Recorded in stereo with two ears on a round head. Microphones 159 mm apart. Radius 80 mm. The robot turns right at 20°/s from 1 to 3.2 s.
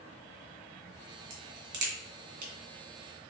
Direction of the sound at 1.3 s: 70° right (ahead or behind).